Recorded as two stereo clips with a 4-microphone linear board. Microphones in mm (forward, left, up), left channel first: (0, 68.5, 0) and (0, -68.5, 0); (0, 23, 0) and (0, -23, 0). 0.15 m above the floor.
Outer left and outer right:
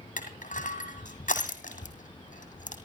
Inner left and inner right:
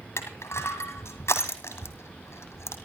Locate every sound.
0.2 s crushing: 75° left (ahead or behind), 2.5 m